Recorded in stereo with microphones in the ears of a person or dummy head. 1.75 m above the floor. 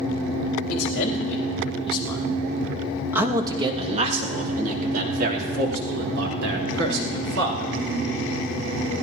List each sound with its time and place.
0.7 s a man speaking: 50° left (ahead or behind), 3.5 m; by 7.7 s 75° right (ahead or behind), 6.5 m